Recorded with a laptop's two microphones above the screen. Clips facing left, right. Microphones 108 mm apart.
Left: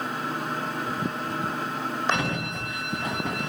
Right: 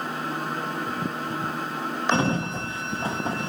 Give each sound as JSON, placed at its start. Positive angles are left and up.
{"t": 0.0, "sound": "a machine running", "side_deg": 0, "distance_m": 1.0}
{"t": 2.1, "sound": "a sliding door", "side_deg": -30, "distance_m": 0.7}